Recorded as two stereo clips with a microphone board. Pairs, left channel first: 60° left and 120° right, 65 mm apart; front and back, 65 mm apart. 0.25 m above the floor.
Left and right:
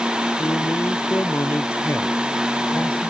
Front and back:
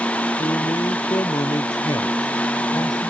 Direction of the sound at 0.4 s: 10° left.